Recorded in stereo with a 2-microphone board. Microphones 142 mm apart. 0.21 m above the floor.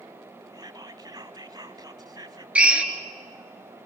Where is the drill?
10° right (ahead or behind), 1.8 m.